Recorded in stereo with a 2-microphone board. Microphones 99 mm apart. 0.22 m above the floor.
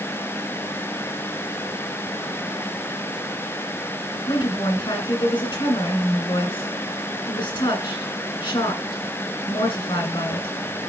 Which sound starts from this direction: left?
A woman speaking, at 4.3 s.